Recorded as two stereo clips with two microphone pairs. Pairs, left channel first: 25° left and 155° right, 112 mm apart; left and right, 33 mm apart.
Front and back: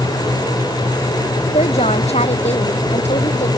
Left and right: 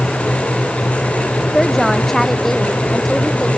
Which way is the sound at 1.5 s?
10° left.